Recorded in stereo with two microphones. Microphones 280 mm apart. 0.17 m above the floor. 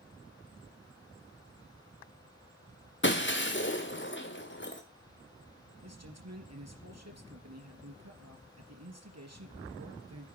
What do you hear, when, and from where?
3.0 s breaking glass: 40° left (ahead or behind), 2 m
5.8 s a man speaking: 65° right (ahead or behind), 3.5 m